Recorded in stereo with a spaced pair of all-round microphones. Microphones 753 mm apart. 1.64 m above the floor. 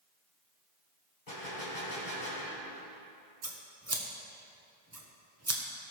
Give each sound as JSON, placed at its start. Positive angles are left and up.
{"t": 1.3, "sound": "a gunshot", "side_deg": 65, "distance_m": 3.0}
{"t": 3.4, "sound": "scissors", "side_deg": -20, "distance_m": 1.1}